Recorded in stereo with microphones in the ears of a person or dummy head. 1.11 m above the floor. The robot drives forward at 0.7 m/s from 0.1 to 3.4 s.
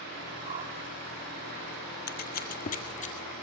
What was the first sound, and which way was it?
A whoosh, 35° right (ahead or behind).